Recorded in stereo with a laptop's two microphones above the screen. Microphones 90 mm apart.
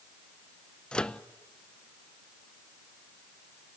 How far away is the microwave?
About 0.5 m.